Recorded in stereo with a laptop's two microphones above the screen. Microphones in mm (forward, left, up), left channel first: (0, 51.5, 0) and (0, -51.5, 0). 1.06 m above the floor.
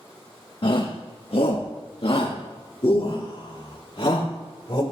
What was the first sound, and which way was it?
A shout, 60° left (ahead or behind).